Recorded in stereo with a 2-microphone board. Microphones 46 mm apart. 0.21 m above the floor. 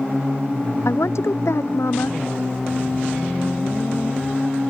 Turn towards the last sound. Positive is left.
turn(degrees=80)